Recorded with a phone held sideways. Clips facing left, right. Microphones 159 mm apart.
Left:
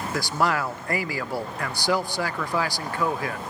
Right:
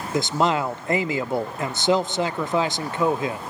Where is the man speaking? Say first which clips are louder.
Right 4 dB; 20° right (ahead or behind), 0.6 m.